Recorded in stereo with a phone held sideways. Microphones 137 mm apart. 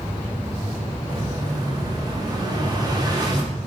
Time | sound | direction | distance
1.1 | an explosion | 30° right (ahead or behind) | 1.4 m